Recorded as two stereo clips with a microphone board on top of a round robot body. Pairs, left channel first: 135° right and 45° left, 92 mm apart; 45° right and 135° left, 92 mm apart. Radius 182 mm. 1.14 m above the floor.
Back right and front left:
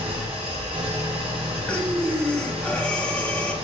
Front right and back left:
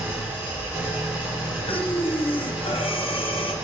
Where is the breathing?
60° right, 1.0 m.